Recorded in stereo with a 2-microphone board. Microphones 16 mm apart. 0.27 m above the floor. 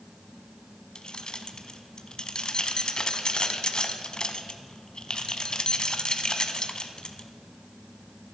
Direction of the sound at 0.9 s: 50° left (ahead or behind).